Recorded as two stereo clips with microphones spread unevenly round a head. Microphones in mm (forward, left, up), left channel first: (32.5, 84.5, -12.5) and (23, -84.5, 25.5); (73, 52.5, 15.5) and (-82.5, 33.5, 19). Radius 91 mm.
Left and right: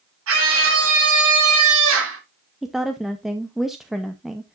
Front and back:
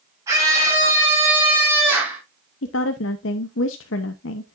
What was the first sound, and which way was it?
A scream, 95° right.